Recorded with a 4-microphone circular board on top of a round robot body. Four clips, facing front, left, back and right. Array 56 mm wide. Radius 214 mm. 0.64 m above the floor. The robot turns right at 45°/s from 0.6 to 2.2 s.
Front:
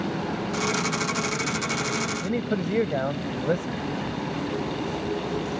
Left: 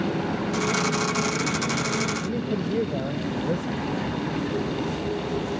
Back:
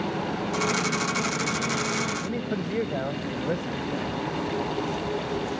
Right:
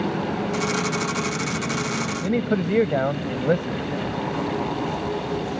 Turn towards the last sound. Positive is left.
turn(degrees=-75)